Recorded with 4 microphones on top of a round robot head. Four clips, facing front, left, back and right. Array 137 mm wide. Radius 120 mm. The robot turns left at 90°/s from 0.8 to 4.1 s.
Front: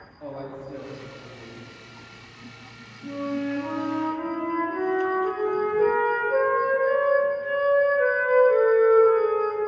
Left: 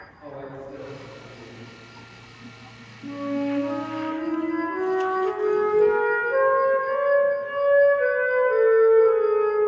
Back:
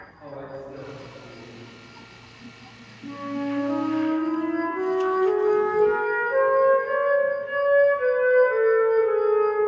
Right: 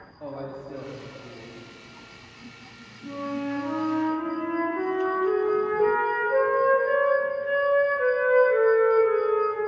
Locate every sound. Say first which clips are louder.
0.2 s a man speaking: right 1 dB, front 1 dB; 65° right, 1.0 m; by 1.6 s 135° right, 1.0 m
3.0 s a flute: left 4 dB, front 1 dB; 100° left, 1.1 m; by 9.6 s 5° left, 1.1 m